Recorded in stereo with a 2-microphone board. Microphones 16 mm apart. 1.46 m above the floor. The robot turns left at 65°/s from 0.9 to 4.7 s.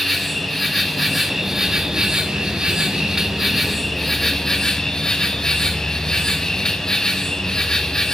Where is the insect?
20° left, 1.2 m; by 8.2 s 135° left, 1.2 m.